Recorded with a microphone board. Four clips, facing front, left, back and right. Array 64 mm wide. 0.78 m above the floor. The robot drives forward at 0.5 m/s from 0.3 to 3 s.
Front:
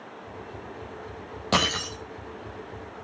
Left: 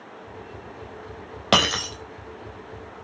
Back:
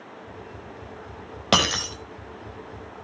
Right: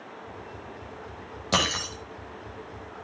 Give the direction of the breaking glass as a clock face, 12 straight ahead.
8 o'clock.